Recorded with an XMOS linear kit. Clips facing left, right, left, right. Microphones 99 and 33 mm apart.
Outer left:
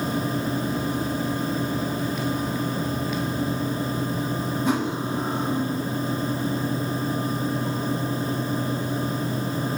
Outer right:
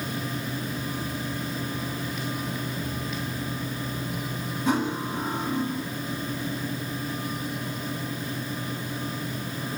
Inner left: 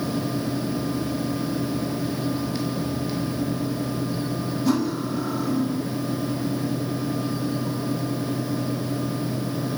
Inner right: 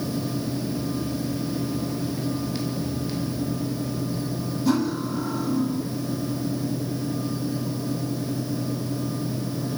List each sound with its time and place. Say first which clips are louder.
4.7 s cutlery clinking: outer right 1 dB, inner right 1 dB; centre (ahead or behind), 7 m